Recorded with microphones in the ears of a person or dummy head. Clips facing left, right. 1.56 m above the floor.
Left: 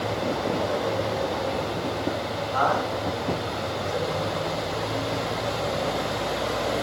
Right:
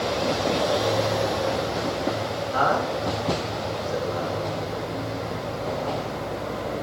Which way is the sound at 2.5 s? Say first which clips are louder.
Right 1 dB; 30° right (ahead or behind).